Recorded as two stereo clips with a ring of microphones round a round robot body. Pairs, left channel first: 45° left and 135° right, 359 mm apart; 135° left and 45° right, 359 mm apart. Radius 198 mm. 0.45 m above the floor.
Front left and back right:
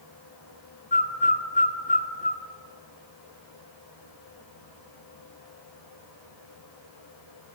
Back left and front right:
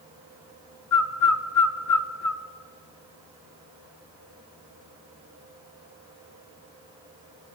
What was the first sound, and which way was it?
A bird, 110° left.